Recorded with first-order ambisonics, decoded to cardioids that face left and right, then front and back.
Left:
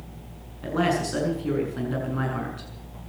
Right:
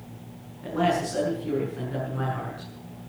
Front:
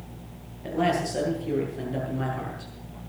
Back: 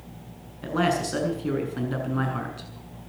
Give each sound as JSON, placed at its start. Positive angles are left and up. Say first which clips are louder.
{"t": 0.6, "sound": "a man speaking", "louder": "even, back 1 dB", "azimuth_deg": 155, "distance_m": 6.5}